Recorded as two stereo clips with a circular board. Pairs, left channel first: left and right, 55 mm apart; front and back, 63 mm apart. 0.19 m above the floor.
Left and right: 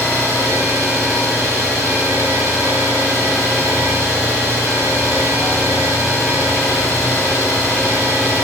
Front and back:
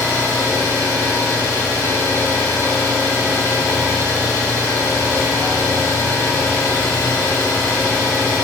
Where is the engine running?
20° left, 6 m.